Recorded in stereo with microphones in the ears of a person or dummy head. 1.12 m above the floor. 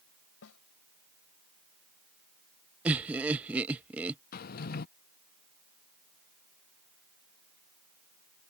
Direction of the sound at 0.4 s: 75° left (ahead or behind).